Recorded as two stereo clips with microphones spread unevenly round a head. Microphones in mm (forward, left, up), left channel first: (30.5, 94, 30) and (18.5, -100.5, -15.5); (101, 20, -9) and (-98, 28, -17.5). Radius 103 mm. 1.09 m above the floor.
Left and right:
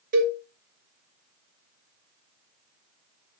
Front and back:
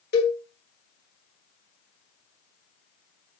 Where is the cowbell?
50° right, 3.5 m.